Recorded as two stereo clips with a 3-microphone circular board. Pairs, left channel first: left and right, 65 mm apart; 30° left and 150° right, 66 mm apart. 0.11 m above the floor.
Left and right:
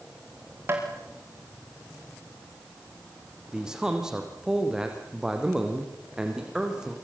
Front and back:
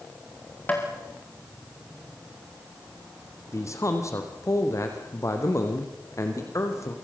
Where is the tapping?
35° right, 7.5 m.